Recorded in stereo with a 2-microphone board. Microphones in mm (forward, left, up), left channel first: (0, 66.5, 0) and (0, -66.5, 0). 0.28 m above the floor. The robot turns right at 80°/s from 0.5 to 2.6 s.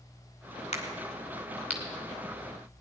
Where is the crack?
55° left (ahead or behind), 2.5 m; by 2.8 s 65° right (ahead or behind), 2.5 m.